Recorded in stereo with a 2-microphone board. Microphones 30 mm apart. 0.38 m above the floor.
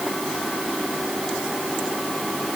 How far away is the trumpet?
No trumpet in this recording.